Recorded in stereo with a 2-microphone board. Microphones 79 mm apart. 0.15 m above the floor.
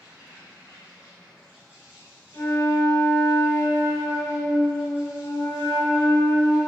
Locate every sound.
0.0 s an insect: 15° right (ahead or behind), 1.6 m
2.3 s a flute: 45° left (ahead or behind), 1.3 m